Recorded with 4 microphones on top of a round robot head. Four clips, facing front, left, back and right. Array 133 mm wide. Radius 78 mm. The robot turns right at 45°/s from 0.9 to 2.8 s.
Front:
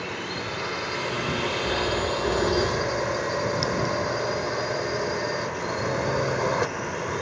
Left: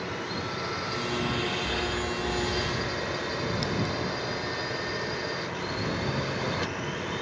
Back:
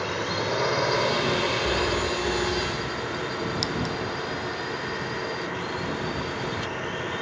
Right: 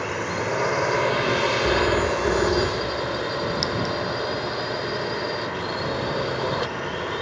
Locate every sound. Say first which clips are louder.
0.0 s a drone: right 7 dB, back 4 dB; 120° right; by 7.2 s 35° right
1.6 s a phone ringing: right 10 dB, even; 100° right; by 3.2 s 50° right
3.6 s a clink: right 4 dB, front 3 dB; 100° right